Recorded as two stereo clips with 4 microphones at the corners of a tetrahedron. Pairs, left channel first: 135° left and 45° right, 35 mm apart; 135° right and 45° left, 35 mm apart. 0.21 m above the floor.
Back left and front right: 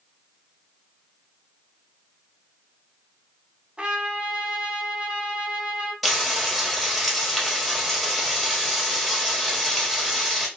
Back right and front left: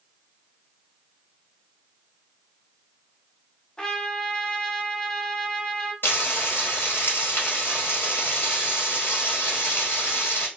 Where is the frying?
135° right, 1.3 m.